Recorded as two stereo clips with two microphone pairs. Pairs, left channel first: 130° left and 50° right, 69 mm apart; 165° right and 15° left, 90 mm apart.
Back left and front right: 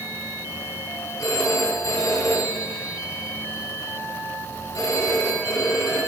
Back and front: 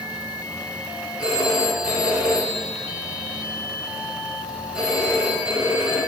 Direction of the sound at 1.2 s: 95° left.